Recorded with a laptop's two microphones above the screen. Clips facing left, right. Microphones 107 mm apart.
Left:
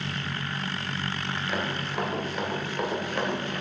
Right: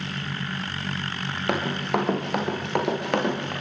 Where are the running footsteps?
65° right (ahead or behind), 7.5 m; by 3.5 s 75° right (ahead or behind), 9 m.